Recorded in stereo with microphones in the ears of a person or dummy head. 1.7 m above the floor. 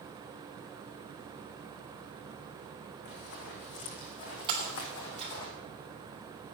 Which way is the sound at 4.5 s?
25° right (ahead or behind).